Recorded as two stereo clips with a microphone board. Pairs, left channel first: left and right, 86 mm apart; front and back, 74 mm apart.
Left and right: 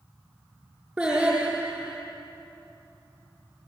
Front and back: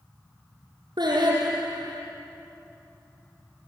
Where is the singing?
165° right, 5.5 m.